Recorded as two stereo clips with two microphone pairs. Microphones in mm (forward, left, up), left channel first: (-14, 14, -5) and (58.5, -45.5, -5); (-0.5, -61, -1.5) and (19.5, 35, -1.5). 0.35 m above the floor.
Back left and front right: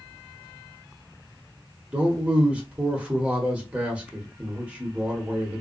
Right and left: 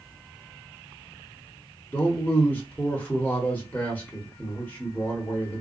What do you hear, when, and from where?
1.9 s a man speaking: 75° right, 0.9 m